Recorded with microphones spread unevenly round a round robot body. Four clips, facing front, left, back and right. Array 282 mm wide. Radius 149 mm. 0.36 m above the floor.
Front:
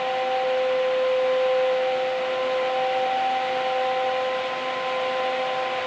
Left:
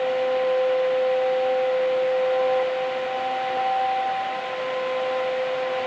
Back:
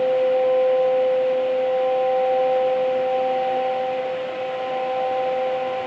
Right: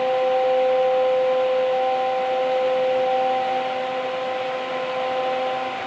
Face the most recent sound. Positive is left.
No sound to turn to.